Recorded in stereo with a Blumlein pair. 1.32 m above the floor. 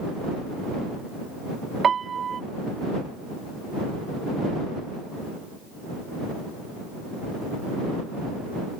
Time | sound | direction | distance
1.8 | a piano | 20° right | ?